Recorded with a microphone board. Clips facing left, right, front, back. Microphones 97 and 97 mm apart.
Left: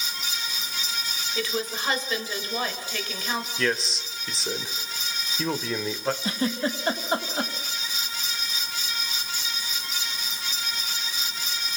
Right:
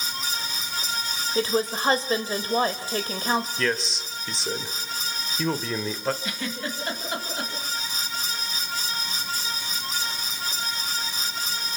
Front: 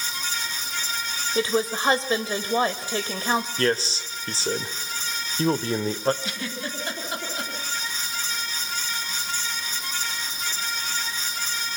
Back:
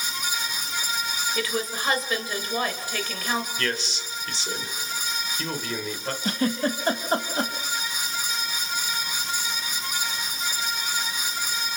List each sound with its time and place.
1.4 s a woman speaking: 50° right, 1.9 m
3.6 s a man speaking: straight ahead, 1.4 m
6.2 s a giggle: 140° left, 3 m